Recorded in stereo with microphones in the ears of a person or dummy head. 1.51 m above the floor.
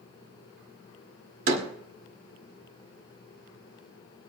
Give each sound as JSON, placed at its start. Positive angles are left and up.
{"t": 1.5, "sound": "a door slam", "side_deg": -50, "distance_m": 2.0}